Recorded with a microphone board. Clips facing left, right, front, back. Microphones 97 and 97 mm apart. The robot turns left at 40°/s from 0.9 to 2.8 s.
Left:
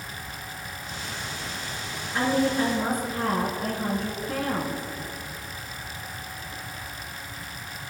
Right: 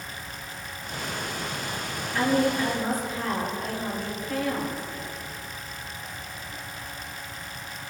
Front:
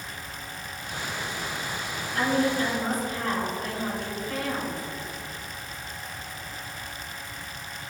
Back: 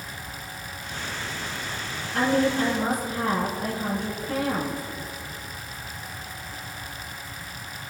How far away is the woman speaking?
About 4 m.